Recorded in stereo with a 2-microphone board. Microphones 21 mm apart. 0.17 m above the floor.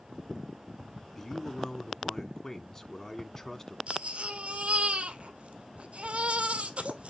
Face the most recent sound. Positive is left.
turn(degrees=-65)  # may be behind; listen again after turning